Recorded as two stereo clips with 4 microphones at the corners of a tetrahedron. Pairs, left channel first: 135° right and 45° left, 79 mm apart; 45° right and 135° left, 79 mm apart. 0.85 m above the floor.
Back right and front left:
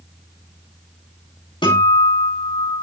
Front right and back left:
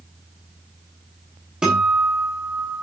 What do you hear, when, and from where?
1.6 s a guitar: 145° right, 9.5 m